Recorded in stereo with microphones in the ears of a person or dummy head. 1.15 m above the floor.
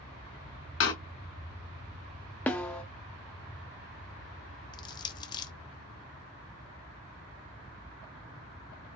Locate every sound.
0.8 s a door slam: 75° left (ahead or behind), 1.2 m
2.5 s a snare drum: 10° left (ahead or behind), 0.7 m
4.7 s crushing: 20° left (ahead or behind), 0.6 m